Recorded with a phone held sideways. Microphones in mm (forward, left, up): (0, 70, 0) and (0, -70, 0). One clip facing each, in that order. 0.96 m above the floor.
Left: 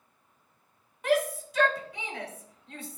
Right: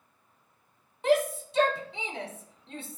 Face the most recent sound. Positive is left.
turn(degrees=-25)  # may be behind; listen again after turning